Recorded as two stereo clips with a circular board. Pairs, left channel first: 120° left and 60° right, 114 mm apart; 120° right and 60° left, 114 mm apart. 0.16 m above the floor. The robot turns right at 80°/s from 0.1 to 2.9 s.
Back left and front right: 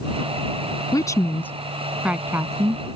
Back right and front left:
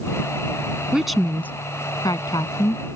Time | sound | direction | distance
0.9 | a woman speaking | 135° left | ?